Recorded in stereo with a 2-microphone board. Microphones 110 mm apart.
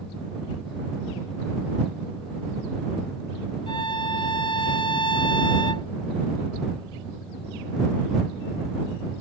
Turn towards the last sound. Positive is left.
turn(degrees=55)  # may be behind; listen again after turning